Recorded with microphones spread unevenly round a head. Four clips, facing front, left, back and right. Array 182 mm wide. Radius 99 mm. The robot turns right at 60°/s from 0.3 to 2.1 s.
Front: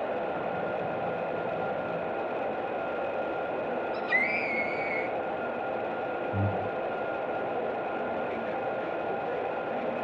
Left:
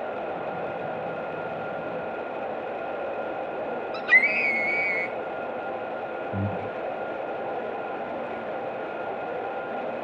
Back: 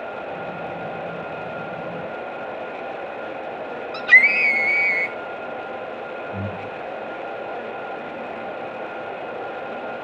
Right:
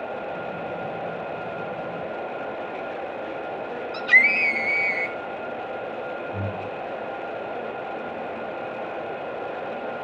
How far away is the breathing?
About 1.0 m.